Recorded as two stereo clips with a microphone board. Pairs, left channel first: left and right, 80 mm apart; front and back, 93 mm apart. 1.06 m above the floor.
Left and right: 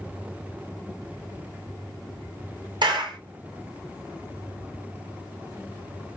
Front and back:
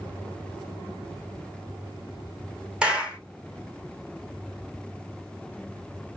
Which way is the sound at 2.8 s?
100° right.